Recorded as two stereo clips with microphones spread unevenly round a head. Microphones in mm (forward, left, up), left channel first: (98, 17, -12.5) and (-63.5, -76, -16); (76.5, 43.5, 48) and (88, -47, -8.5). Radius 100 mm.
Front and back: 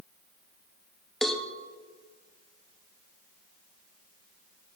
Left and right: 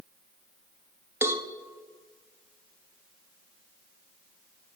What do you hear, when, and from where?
1.2 s a cowbell: 60° right, 0.8 m